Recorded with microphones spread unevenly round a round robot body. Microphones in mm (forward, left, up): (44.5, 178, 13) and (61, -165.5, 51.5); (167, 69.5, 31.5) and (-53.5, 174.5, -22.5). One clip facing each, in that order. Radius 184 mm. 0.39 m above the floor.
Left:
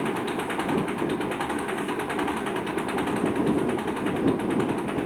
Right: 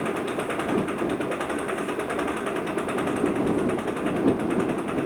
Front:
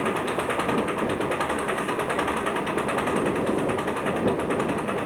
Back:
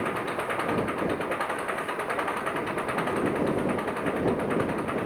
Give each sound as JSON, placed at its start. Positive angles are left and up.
{"t": 0.0, "sound": "an engine running", "azimuth_deg": 15}